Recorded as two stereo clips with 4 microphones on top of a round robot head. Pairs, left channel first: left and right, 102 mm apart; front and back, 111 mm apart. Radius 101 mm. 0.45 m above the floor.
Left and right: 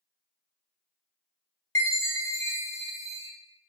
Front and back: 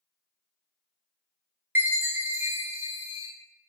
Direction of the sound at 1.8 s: 120° left.